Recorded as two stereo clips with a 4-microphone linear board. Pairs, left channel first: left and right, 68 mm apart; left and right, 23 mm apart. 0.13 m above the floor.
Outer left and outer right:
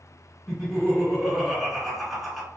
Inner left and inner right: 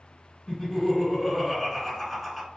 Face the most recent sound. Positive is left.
turn(degrees=0)  # may be behind; listen again after turning